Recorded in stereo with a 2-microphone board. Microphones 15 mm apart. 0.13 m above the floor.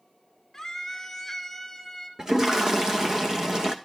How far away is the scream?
About 1.6 m.